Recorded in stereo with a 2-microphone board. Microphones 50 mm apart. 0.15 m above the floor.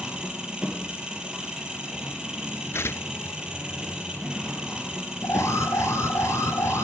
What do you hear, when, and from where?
0.0 s an engine running: 20° right (ahead or behind), 3.5 m
2.7 s tearing paper: 55° left (ahead or behind), 0.6 m
5.2 s an alarm: 65° left (ahead or behind), 1.8 m